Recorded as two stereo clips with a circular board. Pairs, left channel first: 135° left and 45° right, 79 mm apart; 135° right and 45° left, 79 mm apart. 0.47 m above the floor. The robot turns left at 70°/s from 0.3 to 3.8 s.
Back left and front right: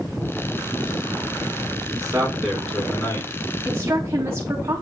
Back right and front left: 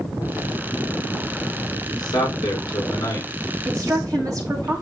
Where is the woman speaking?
15° left, 3 m; by 4.8 s 5° left, 3 m.